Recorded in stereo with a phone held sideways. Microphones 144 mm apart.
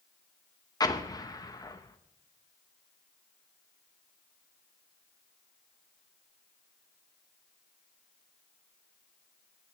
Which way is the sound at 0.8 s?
25° left (ahead or behind).